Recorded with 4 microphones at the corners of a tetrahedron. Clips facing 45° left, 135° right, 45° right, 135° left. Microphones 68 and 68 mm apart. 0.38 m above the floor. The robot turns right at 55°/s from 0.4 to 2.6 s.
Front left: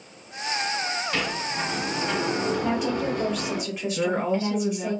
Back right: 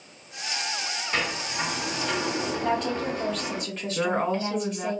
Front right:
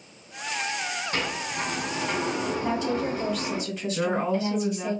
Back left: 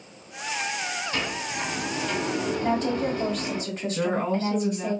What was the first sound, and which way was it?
A sliding door, 65° right.